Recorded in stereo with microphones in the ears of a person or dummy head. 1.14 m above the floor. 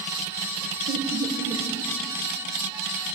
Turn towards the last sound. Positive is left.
turn(degrees=-20)  # may be behind; listen again after turning